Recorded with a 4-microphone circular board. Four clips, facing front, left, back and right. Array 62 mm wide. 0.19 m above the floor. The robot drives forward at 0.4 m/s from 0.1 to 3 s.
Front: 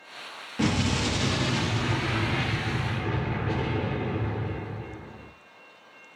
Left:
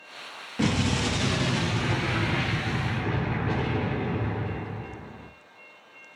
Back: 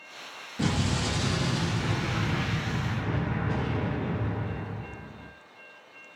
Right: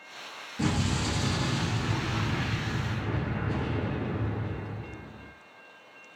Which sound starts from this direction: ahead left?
An explosion, at 0.6 s.